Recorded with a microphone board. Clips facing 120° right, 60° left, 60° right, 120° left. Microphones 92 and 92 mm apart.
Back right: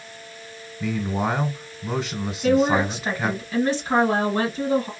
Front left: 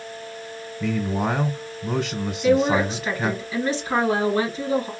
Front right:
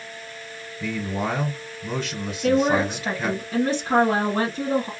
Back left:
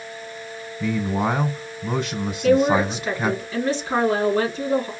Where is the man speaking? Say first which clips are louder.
Front left 1 dB, back left 4 dB; 170° left, 1.3 m.